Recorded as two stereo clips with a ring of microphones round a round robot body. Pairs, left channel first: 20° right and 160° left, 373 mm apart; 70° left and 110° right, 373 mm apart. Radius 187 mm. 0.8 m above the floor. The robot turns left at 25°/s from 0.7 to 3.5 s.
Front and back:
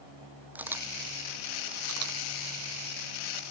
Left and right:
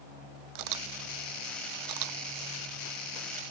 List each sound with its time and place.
0.6 s a camera shutter: 115° right; by 3.4 s 175° left